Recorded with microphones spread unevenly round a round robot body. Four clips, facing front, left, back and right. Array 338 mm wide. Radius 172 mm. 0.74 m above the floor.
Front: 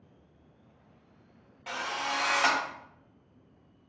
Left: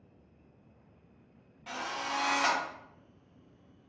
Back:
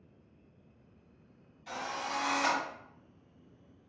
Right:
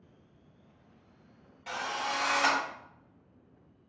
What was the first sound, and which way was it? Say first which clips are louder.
A drill: right 2 dB, front 4 dB; 20° right.